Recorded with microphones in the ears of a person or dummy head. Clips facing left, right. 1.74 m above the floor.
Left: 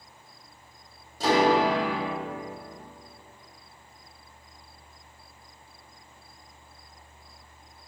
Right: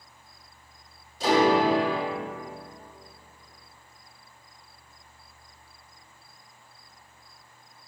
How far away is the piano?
About 1.2 m.